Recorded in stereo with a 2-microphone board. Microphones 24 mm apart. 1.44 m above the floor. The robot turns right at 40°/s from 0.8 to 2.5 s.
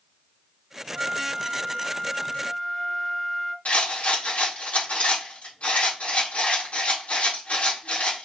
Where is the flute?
35° right, 0.6 m; by 3.5 s 25° left, 0.6 m.